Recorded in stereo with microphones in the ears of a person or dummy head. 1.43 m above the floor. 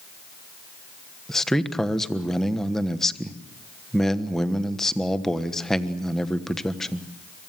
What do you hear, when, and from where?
1.3 s a man speaking: centre (ahead or behind), 1.2 m